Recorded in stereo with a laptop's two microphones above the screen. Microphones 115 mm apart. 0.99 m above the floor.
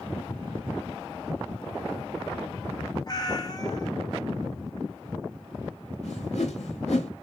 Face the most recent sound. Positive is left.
turn(degrees=80)